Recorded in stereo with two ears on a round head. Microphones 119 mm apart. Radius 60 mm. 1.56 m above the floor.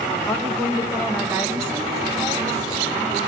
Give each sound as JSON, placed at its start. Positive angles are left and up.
{"t": 0.3, "sound": "a woman speaking", "side_deg": 5, "distance_m": 1.1}